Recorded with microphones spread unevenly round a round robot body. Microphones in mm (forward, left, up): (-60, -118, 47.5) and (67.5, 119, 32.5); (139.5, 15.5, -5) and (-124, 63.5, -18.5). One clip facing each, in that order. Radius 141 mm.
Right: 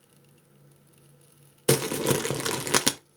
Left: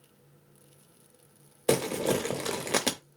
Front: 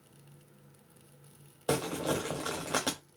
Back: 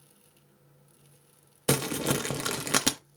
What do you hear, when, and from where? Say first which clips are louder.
1.7 s crumpling: right 2 dB, back 3 dB; straight behind, 0.8 m